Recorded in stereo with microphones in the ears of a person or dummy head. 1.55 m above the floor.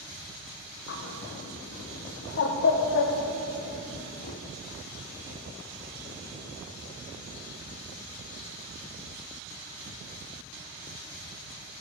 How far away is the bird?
About 0.8 m.